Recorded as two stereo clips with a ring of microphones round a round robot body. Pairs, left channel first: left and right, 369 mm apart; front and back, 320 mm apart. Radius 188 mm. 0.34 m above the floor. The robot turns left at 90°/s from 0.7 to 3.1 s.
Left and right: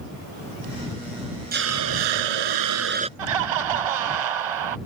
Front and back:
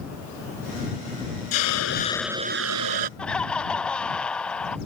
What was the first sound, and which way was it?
A hiss, 25° right.